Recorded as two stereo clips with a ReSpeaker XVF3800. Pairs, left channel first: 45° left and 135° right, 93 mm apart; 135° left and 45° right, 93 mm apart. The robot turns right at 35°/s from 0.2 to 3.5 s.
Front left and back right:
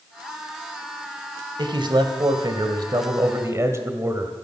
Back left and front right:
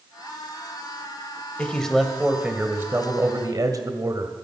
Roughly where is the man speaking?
Behind right.